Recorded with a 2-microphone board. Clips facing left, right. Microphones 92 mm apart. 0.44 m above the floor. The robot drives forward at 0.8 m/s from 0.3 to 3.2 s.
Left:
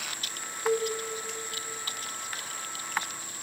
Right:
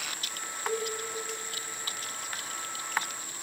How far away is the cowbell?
About 1.1 m.